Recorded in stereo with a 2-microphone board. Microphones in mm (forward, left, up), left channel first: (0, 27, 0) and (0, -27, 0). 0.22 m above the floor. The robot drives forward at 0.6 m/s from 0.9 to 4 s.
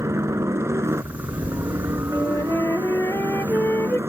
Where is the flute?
75° left (ahead or behind); by 4.0 s 55° left (ahead or behind).